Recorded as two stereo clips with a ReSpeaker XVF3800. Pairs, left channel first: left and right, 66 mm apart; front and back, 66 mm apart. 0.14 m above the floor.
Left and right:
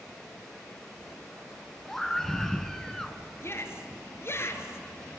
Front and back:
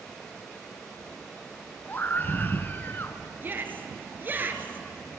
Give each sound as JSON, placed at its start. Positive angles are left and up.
{"t": 1.9, "sound": "a scream", "azimuth_deg": 10, "distance_m": 1.4}
{"t": 3.4, "sound": "a shout", "azimuth_deg": 125, "distance_m": 2.5}